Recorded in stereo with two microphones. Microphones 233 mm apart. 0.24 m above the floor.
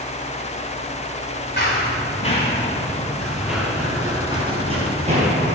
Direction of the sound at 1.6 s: 45° left (ahead or behind).